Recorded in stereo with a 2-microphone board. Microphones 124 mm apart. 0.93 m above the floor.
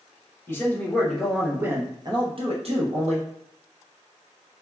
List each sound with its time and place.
0.5 s a man speaking: 20° left (ahead or behind), 1.0 m; by 3.3 s 65° right (ahead or behind), 1.1 m